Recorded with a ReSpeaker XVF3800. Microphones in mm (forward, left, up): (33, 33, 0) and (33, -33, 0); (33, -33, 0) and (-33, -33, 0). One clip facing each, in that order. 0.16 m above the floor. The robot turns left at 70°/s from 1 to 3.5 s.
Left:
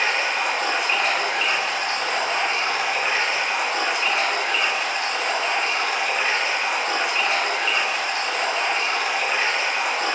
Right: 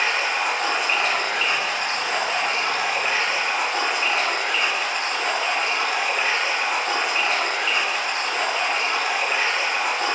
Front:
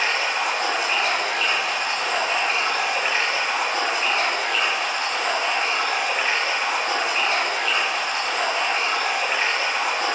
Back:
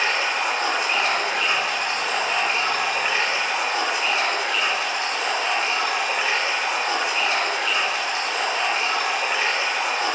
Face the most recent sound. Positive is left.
turn(degrees=5)